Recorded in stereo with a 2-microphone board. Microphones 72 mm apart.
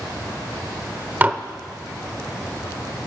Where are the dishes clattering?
25° right (ahead or behind), 0.6 m.